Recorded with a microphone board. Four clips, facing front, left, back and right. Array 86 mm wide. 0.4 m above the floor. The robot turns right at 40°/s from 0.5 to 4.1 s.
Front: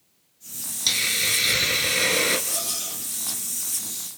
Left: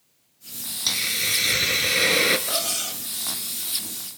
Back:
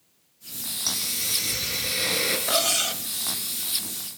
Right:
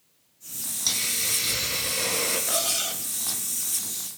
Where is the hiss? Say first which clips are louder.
Left 5 dB, front 8 dB; 20° left, 1.8 m; by 2.4 s 80° left, 1.8 m.